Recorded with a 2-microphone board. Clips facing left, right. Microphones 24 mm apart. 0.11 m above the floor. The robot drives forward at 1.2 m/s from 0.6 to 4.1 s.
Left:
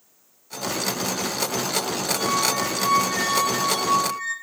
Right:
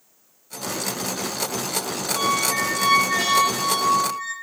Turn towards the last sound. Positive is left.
turn(degrees=-20)  # may be behind; listen again after turning